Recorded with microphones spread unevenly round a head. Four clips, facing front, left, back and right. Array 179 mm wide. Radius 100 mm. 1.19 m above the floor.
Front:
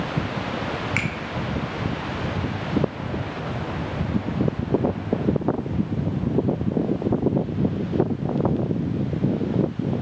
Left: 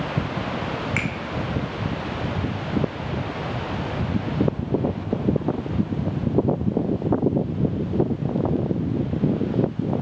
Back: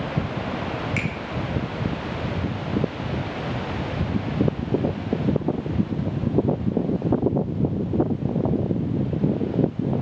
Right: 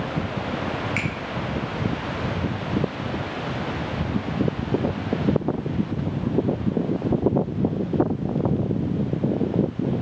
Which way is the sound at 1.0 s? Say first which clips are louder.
Left 1 dB, even; 50° left.